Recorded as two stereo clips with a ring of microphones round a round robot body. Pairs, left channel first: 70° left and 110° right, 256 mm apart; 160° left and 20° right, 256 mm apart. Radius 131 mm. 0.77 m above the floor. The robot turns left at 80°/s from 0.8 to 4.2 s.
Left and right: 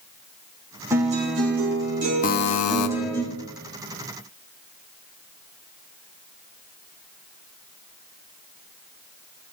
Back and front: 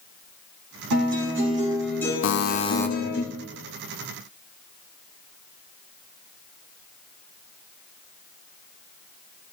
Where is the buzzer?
125° left, 0.9 m; by 2.9 s 75° left, 0.9 m.